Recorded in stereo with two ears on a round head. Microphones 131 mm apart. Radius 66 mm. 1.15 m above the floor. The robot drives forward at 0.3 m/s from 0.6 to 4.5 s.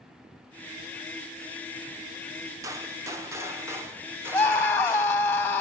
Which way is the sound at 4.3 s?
5° left (ahead or behind).